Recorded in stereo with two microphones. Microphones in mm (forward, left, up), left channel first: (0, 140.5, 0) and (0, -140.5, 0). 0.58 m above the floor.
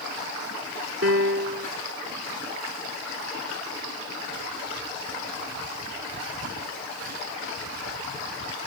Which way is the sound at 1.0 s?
50° right (ahead or behind).